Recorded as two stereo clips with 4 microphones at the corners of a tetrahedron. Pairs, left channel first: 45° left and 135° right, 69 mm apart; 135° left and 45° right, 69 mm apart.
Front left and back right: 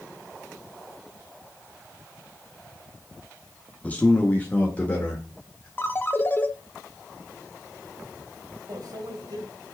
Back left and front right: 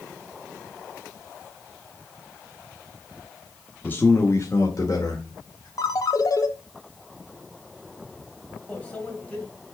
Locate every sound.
3.8 s a man speaking: 100° left, 1.1 m; by 5.7 s 115° left, 2.5 m
5.8 s a ringtone: 105° left, 0.9 m
8.7 s a microwave: 155° right, 2 m